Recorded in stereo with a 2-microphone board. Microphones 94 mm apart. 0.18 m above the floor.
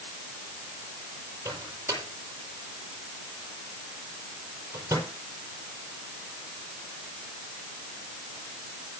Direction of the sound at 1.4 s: 25° right (ahead or behind).